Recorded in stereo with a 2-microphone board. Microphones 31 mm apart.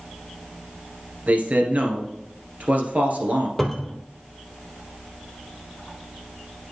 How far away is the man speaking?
About 2 m.